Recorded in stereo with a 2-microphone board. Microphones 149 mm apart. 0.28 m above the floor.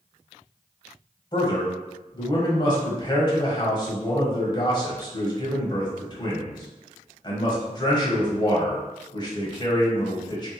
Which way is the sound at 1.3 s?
30° left (ahead or behind).